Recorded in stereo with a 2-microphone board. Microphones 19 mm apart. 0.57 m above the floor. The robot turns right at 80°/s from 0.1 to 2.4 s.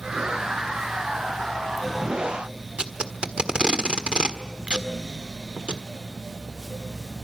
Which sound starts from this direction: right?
Tape being pulled, at 2.8 s.